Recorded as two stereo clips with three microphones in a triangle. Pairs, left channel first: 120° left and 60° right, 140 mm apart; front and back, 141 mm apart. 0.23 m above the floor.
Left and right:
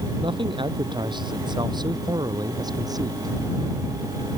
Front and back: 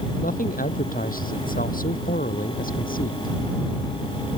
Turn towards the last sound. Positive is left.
turn(degrees=5)